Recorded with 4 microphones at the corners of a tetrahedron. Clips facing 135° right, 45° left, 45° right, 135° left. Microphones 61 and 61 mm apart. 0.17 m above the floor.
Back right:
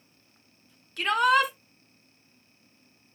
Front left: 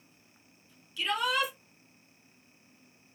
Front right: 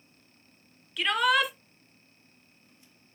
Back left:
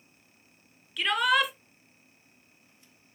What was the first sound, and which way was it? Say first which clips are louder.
A shout: back right 8 dB, even; 135° right.